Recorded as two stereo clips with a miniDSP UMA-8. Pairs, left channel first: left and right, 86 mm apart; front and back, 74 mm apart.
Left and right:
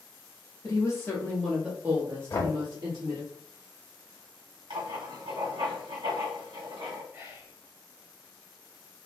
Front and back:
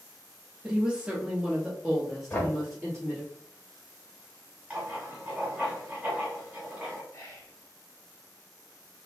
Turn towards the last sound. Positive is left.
turn(degrees=-45)